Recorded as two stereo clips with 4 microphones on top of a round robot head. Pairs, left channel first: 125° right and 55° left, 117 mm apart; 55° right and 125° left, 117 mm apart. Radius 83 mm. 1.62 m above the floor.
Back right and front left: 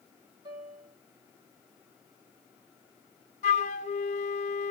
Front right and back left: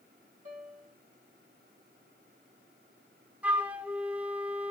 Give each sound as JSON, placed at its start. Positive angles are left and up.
{"t": 0.5, "sound": "a piano", "azimuth_deg": 105, "distance_m": 2.0}
{"t": 3.4, "sound": "a flute", "azimuth_deg": -155, "distance_m": 0.6}